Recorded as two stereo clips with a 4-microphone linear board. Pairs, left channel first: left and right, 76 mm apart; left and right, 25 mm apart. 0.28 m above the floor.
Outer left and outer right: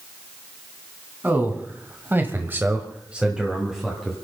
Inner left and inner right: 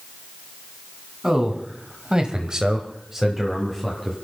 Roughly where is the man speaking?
Right.